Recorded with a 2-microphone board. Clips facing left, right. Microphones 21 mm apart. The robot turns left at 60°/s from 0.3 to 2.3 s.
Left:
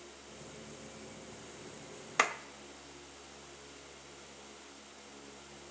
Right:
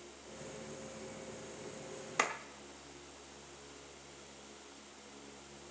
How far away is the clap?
About 0.8 m.